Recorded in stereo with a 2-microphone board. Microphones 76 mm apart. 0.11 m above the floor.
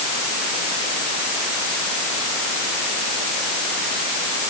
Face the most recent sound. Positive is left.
No sound to turn to.